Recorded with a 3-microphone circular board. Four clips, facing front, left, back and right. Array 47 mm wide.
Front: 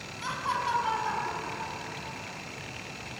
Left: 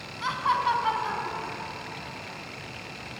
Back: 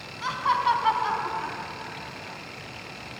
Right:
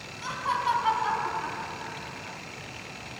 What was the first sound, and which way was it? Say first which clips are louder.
Laughter: left 3 dB, back 7 dB; 125° left.